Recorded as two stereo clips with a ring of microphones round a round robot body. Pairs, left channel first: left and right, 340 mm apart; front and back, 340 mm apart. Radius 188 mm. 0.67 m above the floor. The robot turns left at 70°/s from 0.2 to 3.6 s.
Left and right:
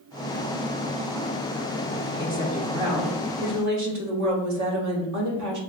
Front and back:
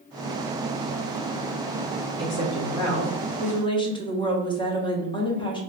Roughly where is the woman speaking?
Ahead left.